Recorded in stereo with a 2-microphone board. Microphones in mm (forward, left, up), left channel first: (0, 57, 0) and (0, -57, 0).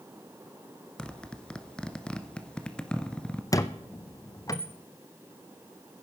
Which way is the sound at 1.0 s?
10° left (ahead or behind).